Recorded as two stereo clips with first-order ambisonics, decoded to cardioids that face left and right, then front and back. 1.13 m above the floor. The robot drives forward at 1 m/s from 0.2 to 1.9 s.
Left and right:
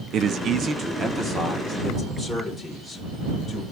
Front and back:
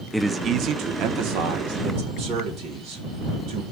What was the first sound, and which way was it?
A man speaking, 90° right.